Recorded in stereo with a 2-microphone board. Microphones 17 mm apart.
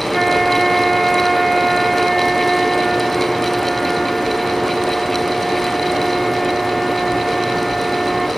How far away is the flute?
About 3 m.